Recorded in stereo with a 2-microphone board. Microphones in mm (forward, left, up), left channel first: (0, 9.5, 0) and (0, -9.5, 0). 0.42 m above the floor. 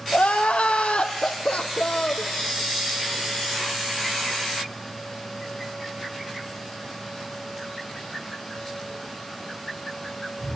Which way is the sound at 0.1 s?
85° left.